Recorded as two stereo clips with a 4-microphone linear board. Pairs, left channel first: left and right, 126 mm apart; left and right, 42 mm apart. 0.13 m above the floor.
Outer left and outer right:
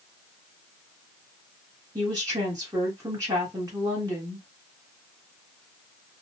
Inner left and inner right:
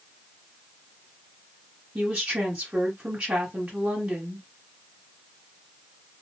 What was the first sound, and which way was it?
A woman speaking, 30° right (ahead or behind).